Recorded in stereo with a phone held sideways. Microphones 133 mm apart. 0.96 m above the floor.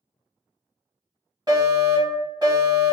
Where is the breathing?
No breathing in this recording.